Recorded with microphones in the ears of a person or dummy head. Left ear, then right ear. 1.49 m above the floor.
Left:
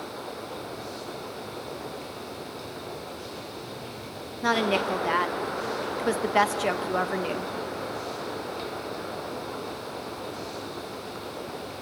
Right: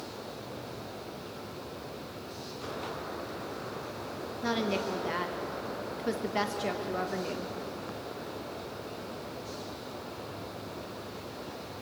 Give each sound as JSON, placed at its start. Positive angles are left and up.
{"t": 4.4, "sound": "a woman speaking", "side_deg": 40, "distance_m": 1.3}